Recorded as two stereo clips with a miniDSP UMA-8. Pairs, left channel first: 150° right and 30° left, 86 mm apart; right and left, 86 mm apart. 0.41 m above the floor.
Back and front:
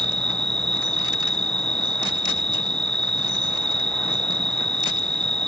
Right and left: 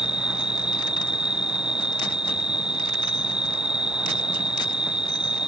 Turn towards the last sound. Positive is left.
turn(degrees=10)